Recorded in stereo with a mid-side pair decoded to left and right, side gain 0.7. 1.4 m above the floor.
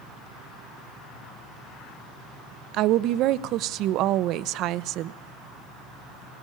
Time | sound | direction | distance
2.7 | a woman speaking | 55° right | 0.8 m